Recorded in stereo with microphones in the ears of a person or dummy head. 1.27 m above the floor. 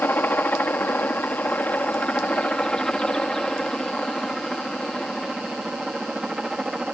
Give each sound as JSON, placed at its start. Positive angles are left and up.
{"t": 0.0, "sound": "a helicopter", "side_deg": 10}